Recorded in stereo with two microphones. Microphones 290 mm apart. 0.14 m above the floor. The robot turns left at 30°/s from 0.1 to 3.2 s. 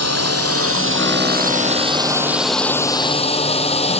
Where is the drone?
70° right (ahead or behind); by 4.0 s 20° left (ahead or behind).